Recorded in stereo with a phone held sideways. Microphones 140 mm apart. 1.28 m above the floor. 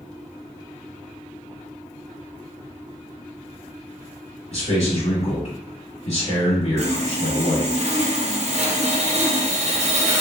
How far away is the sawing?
About 0.5 m.